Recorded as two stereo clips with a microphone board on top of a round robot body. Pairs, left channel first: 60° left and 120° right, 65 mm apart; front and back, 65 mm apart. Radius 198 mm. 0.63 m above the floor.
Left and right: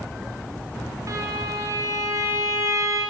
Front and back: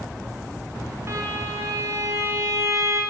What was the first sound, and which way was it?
A violin, 145° right.